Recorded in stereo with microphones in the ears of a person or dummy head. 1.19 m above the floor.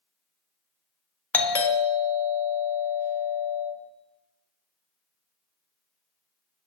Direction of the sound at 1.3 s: 15° left (ahead or behind).